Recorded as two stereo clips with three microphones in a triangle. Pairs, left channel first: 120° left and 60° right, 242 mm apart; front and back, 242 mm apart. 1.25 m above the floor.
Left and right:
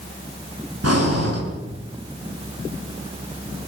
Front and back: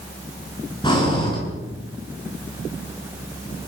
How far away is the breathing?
About 8.5 m.